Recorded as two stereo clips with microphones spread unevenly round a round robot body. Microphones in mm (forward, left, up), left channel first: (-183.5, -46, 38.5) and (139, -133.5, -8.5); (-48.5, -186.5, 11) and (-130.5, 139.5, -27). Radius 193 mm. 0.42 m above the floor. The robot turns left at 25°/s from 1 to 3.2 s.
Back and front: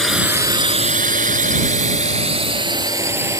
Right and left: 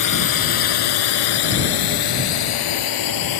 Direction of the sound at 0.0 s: 105° right.